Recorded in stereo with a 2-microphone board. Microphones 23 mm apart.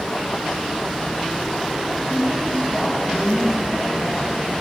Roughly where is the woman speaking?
Centre.